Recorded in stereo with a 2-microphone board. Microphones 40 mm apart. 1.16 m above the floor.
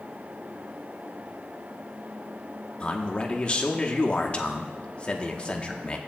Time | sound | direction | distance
2.8 | a man speaking | 30° left (ahead or behind) | 1.1 m